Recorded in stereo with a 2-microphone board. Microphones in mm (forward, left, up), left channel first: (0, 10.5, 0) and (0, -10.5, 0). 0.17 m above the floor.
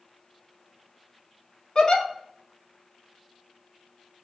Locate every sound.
1.8 s a giggle: 35° left (ahead or behind), 0.7 m